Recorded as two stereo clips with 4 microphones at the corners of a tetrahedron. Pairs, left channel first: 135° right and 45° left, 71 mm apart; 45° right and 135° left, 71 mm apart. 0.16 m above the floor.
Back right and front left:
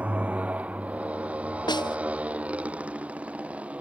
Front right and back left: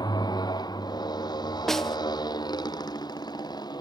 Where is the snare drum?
130° right.